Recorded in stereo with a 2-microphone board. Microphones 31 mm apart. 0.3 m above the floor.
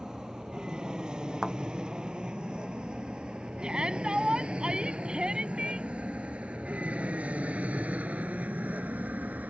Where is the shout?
30° right (ahead or behind).